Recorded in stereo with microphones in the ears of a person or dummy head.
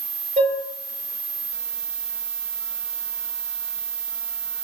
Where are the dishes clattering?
40° right (ahead or behind), 5 m.